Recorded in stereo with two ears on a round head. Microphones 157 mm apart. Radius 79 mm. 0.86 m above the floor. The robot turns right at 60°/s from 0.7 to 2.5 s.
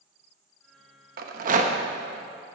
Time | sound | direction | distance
1.2 | a rattle | 55° right (ahead or behind) | 0.9 m